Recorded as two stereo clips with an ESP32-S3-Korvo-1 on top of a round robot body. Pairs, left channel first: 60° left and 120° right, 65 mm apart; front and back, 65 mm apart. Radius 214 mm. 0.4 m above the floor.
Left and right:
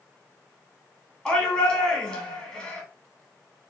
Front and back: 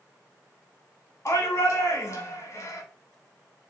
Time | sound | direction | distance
1.2 | a shout | 30° right | 1.9 m